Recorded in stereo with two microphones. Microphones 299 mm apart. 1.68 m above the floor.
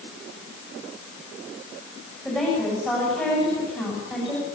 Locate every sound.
2.2 s a woman speaking: centre (ahead or behind), 9 m